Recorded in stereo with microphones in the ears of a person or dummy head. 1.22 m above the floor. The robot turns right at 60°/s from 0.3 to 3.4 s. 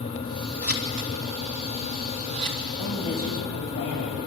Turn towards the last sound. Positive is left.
turn(degrees=115)